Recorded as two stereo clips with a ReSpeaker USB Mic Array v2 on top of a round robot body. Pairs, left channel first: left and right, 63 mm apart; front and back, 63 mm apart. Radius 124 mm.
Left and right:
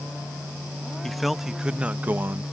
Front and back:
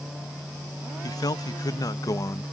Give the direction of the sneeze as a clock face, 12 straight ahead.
No sneeze in this recording.